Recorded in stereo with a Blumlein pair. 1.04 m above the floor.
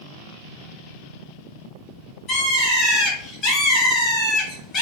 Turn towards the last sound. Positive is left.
turn(degrees=25)